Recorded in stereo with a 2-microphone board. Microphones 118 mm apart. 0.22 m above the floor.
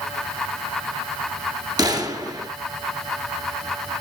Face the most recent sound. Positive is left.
turn(degrees=-35)  # may be behind; listen again after turning